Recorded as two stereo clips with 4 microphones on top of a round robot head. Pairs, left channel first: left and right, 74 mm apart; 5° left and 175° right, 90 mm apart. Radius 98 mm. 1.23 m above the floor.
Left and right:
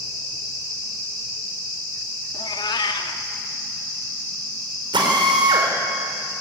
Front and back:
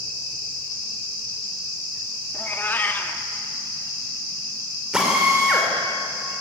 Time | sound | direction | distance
2.3 | a cat meowing | 75° left | 1.4 m
4.9 | a drill | 90° right | 4.5 m